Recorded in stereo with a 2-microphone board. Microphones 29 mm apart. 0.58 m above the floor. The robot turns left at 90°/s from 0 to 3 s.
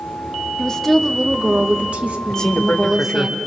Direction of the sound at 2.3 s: 155° left.